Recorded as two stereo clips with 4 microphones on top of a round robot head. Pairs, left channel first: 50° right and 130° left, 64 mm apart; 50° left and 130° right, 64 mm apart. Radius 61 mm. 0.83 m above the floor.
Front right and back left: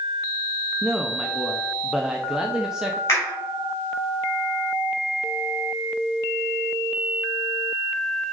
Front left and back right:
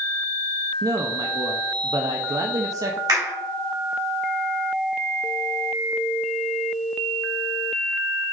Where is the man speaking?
145° right, 0.7 m.